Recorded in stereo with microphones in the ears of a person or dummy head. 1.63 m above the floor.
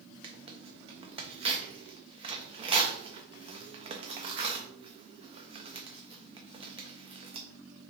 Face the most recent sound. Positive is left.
turn(degrees=-25)  # may be behind; listen again after turning